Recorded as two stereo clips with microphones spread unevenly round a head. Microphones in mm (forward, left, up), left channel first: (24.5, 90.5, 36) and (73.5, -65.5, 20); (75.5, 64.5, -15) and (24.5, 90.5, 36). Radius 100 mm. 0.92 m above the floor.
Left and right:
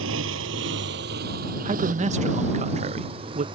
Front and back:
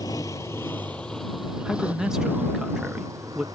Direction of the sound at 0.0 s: 90° right.